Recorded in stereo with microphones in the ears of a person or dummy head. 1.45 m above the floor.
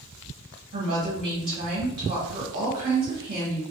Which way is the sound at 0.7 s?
65° right (ahead or behind).